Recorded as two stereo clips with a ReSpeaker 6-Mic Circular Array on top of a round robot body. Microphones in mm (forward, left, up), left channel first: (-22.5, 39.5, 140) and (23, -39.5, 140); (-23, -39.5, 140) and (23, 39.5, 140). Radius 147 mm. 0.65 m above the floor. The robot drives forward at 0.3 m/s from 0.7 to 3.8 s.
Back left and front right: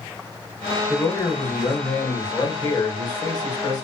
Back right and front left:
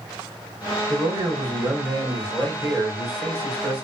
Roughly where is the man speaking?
Left.